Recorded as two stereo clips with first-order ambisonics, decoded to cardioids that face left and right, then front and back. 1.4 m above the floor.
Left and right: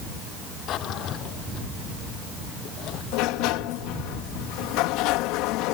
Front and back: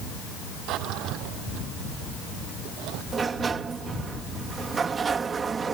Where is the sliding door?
110° left.